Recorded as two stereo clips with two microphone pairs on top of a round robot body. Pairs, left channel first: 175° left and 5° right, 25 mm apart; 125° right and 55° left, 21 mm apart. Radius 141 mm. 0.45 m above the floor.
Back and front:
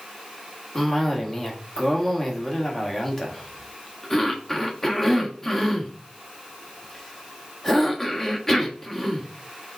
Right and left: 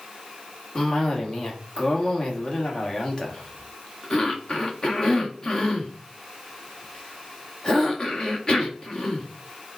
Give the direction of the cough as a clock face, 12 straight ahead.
4 o'clock.